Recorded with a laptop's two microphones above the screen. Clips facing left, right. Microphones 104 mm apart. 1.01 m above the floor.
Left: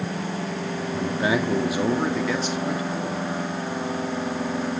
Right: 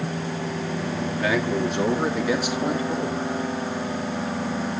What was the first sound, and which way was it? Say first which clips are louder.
A man speaking: left 1 dB; 30° left (ahead or behind).